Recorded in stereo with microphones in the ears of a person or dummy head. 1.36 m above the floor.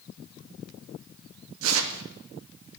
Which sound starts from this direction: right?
Tearing paper, at 1.6 s.